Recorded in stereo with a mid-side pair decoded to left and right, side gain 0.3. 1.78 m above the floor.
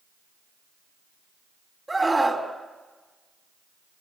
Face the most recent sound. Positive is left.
turn(degrees=-20)